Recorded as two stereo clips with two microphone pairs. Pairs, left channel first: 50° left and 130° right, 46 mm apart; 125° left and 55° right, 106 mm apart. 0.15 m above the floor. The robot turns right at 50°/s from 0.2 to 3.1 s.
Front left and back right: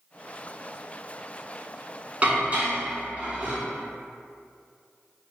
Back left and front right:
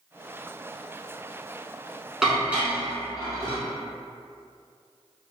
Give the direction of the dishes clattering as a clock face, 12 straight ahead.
5 o'clock.